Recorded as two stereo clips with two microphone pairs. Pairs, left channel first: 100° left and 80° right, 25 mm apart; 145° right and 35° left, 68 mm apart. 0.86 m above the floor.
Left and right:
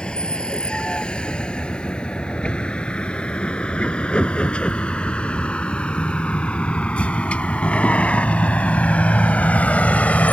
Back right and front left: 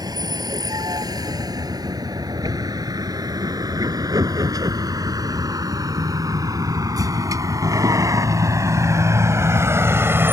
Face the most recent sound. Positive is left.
turn(degrees=90)